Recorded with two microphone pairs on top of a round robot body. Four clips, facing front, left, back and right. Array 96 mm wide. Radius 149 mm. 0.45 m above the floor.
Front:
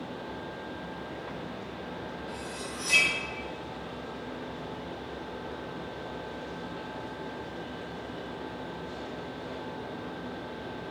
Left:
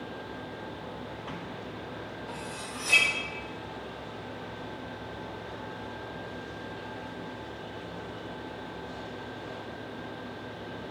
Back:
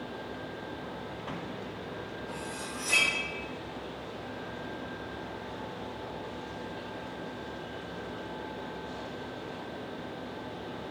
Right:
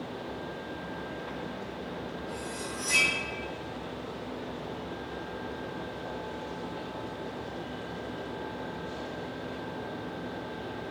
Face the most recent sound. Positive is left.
turn(degrees=90)